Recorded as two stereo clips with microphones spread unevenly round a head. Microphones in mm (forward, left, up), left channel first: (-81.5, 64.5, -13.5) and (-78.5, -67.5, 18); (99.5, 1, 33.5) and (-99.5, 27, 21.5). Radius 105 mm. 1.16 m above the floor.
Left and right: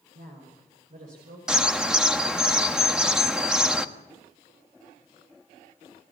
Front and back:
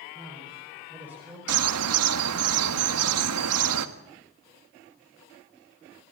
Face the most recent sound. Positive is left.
turn(degrees=-175)